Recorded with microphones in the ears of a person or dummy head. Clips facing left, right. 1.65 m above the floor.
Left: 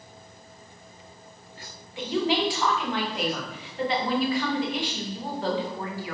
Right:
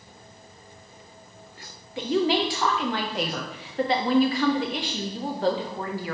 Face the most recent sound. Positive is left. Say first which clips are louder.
# right 2 dB
turn(degrees=-35)  # may be behind; listen again after turning